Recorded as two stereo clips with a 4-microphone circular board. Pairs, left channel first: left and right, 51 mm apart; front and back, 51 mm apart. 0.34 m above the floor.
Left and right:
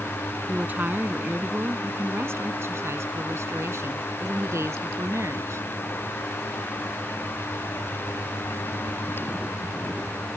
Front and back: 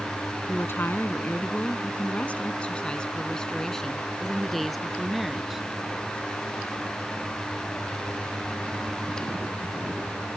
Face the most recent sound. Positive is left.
turn(degrees=-95)